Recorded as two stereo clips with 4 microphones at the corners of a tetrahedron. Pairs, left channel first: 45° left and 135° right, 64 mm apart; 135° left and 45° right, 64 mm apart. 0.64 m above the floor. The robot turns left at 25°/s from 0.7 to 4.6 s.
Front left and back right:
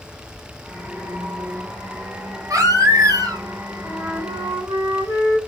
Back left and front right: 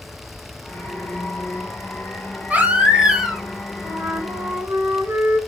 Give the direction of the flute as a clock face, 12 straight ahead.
3 o'clock.